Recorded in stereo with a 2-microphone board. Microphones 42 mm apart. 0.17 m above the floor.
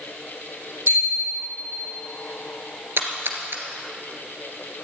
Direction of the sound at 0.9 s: 75° right (ahead or behind).